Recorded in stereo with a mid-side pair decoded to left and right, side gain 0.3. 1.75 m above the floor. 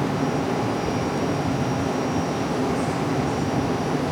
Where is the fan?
10° right, 0.9 m.